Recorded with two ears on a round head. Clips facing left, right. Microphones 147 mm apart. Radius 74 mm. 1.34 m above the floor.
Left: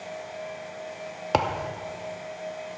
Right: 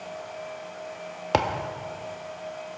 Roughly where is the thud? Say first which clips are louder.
Even; centre.